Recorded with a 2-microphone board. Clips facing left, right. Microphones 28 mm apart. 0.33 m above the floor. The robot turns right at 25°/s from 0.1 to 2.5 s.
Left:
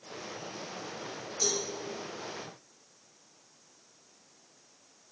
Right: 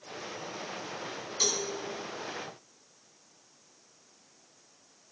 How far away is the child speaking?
I don't hear a child speaking.